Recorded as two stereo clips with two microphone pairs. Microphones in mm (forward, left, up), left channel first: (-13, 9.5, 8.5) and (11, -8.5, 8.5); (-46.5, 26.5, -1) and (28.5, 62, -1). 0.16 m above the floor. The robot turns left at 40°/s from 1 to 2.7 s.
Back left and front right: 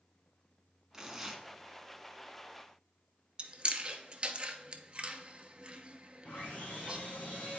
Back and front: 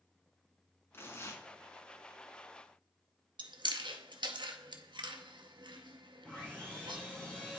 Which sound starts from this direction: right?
Tearing paper, at 0.9 s.